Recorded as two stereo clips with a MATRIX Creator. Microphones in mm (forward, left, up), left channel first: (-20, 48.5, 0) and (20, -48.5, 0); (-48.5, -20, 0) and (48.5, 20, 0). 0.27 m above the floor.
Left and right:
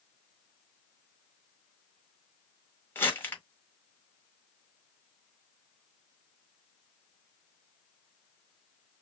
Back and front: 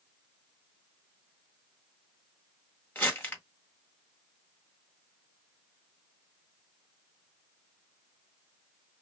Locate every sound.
3.0 s crumpling: 155° left, 1.7 m